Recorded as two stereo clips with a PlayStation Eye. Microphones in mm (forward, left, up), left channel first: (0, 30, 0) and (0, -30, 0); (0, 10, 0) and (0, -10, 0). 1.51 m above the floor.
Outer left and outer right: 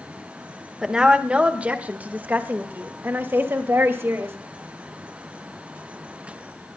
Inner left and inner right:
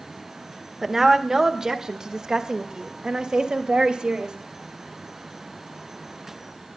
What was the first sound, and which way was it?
A woman speaking, 15° right (ahead or behind).